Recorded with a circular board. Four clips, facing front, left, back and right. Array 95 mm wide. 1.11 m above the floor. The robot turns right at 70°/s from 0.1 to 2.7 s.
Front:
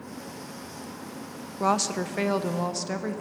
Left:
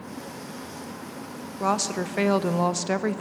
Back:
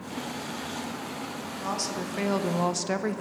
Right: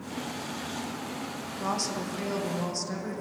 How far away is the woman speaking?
About 0.6 m.